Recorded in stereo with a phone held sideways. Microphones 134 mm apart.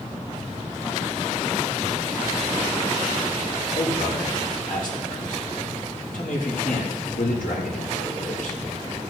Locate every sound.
3.8 s a man speaking: 80° left, 5.5 m